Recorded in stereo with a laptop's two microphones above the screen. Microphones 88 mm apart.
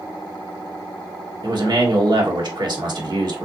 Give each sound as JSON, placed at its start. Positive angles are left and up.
{"t": 1.4, "sound": "a man speaking", "side_deg": -55, "distance_m": 1.1}